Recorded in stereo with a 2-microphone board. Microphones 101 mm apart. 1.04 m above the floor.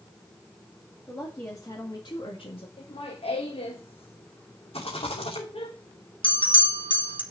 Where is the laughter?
70° left (ahead or behind), 1.2 m.